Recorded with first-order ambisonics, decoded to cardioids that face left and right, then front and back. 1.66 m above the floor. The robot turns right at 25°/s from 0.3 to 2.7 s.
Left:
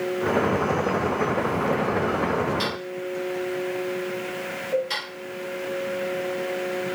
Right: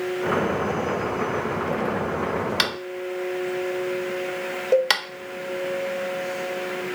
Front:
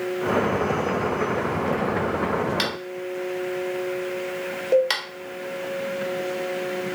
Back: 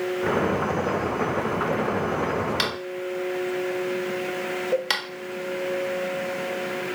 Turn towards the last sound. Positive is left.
turn(degrees=-75)